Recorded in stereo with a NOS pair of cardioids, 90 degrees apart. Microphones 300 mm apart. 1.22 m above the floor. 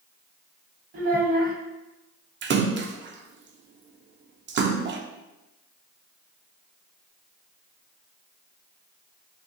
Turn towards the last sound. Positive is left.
turn(degrees=-40)